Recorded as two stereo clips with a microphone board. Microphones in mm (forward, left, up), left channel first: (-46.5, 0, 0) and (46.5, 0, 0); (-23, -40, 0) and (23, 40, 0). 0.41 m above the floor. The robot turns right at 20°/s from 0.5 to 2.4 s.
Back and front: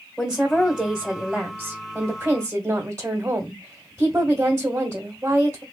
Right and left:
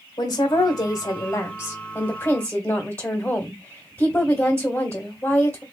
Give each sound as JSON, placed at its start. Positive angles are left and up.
{"t": 0.2, "sound": "a woman speaking", "azimuth_deg": -95, "distance_m": 1.3}